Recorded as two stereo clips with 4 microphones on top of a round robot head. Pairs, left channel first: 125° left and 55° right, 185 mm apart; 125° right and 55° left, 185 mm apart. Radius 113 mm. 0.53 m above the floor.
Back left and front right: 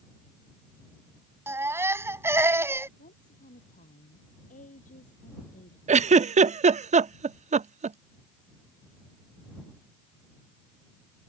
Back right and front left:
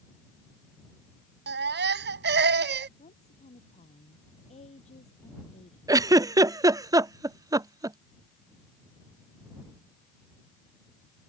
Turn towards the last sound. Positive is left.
turn(degrees=-15)